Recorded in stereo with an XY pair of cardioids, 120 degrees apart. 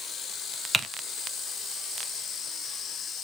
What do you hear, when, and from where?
0.7 s typing on a keyboard: 10° right, 1.1 m